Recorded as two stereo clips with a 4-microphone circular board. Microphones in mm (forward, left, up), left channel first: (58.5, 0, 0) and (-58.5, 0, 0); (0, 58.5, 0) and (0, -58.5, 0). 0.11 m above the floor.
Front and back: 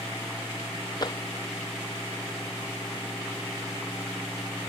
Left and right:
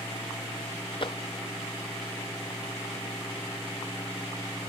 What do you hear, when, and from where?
1.0 s tapping: 50° left